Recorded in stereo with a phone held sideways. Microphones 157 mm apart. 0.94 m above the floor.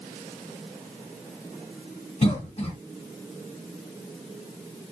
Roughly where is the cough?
Left.